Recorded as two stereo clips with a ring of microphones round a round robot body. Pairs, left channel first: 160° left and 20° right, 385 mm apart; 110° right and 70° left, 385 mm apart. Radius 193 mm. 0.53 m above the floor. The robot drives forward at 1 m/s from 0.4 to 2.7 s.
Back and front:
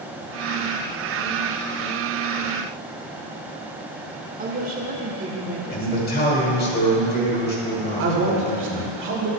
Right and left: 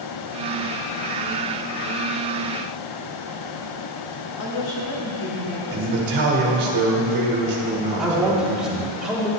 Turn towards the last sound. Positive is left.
turn(degrees=-20)